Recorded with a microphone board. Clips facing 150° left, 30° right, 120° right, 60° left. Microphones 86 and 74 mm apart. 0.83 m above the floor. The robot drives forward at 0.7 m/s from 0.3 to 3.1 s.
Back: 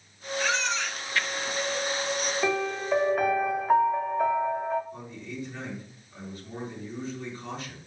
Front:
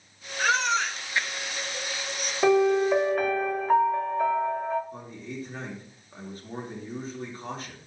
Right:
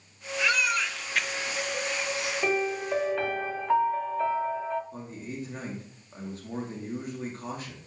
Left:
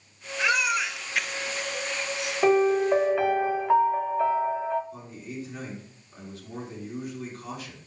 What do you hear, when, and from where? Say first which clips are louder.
0.4 s a baby crying: front 4 dB, left 2 dB; 5° right, 0.8 m; by 2.3 s 175° right, 0.8 m
2.4 s a piano: front 11 dB, left 9 dB; 15° left, 0.7 m; by 4.8 s 85° left, 0.5 m
4.9 s a man speaking: front 1 dB, even; 75° right, 1.8 m